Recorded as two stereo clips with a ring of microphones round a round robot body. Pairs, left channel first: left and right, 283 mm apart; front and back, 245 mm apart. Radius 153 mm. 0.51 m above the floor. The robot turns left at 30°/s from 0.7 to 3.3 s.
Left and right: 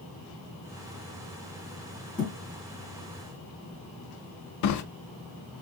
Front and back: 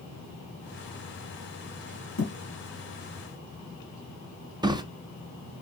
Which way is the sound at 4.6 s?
105° left.